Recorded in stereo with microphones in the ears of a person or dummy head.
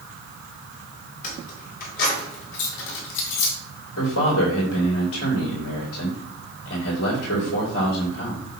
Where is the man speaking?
80° left, 4.5 m.